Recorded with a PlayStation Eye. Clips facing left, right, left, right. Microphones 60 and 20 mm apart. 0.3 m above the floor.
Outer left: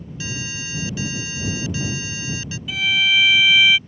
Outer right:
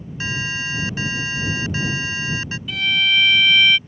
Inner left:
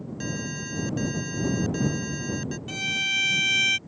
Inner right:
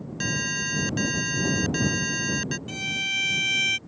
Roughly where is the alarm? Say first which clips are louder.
Outer right 6 dB, inner right 7 dB; right.